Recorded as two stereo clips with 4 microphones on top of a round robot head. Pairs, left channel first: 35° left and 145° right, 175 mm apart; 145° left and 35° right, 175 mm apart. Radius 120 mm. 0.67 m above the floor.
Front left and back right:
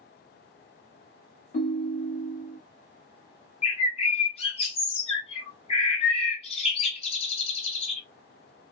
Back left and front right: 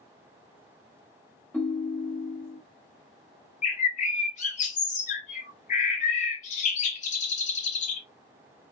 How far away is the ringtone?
About 1.0 m.